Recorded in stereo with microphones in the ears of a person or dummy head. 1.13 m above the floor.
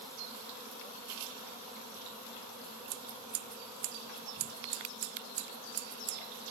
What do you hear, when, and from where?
2.9 s scissors: 45° right (ahead or behind)